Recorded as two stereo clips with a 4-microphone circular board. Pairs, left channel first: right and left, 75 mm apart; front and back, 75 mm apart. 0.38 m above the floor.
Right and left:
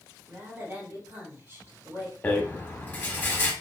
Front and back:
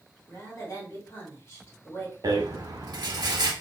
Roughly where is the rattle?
Behind right.